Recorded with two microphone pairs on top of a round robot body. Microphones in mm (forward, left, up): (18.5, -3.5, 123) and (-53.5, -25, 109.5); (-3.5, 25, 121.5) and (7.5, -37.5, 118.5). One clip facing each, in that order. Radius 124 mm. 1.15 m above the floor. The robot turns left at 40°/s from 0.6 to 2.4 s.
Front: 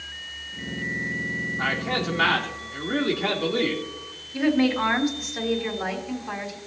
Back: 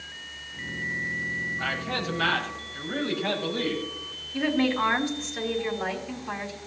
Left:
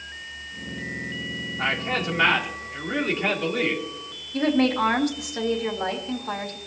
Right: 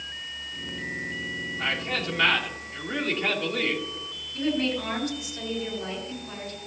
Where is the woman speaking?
100° left, 3 m.